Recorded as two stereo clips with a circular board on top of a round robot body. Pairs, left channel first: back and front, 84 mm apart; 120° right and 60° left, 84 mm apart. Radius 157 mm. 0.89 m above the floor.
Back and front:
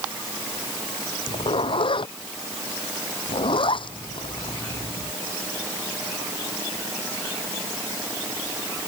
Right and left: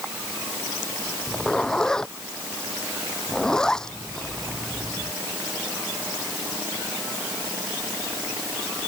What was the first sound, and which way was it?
A zipper, 160° left.